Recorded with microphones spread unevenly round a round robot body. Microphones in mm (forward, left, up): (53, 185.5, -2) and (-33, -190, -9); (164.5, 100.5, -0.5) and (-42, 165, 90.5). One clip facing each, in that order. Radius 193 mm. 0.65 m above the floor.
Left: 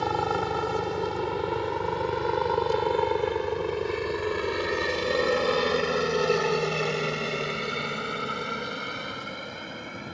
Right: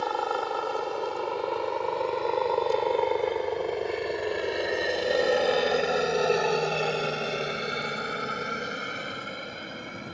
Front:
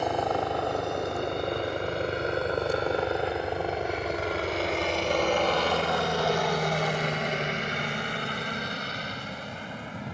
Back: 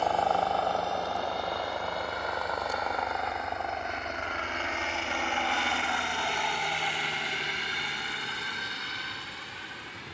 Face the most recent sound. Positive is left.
turn(degrees=-15)